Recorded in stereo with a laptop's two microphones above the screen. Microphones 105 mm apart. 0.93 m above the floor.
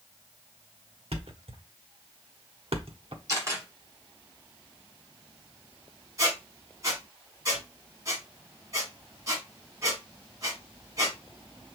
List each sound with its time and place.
1.1 s a thud: 65° right (ahead or behind), 1.0 m
3.3 s a camera shutter: 35° right (ahead or behind), 1.9 m
6.2 s a squeak: 35° right (ahead or behind), 1.7 m